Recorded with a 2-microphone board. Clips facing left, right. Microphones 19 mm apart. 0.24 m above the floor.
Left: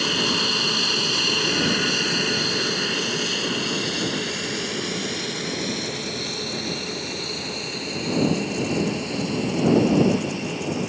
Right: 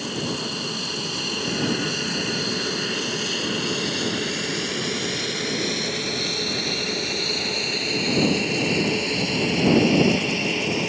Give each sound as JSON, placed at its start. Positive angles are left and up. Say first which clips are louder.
{"t": 0.0, "sound": "an aircraft", "louder": "left 7 dB", "side_deg": 35}